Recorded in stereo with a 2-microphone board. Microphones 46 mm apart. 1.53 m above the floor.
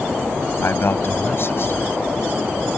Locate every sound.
0.6 s a man speaking: 55° left (ahead or behind)